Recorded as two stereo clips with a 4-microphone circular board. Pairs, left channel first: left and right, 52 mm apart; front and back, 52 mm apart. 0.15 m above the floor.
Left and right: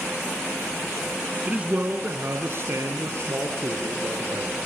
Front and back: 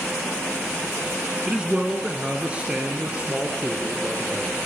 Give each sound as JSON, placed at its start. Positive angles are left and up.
{"t": 1.5, "sound": "a man speaking", "azimuth_deg": -125, "distance_m": 1.5}